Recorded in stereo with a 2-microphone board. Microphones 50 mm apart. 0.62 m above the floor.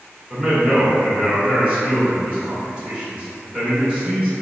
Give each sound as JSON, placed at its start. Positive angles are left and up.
{"t": 0.3, "sound": "a man speaking", "side_deg": -20, "distance_m": 1.6}